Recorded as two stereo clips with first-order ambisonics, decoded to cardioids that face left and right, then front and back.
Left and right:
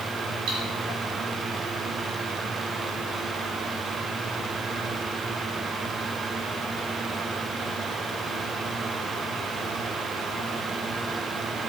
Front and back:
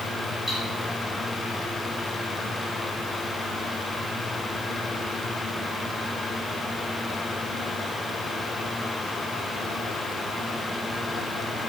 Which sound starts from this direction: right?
Cutlery clinking, at 0.5 s.